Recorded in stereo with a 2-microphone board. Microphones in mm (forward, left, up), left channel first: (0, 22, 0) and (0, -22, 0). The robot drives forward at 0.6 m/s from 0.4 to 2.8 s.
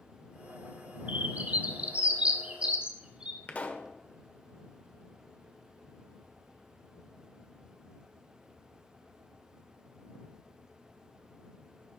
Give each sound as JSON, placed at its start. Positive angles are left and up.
{"t": 1.1, "sound": "a bird", "side_deg": -40, "distance_m": 1.3}
{"t": 3.5, "sound": "a pop", "side_deg": 35, "distance_m": 1.3}